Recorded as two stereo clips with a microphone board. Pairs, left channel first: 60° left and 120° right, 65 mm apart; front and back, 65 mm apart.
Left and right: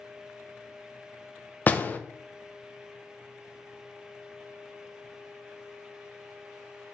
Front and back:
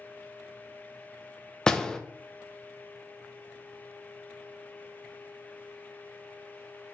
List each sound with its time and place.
1.7 s a door slam: 65° left, 0.6 m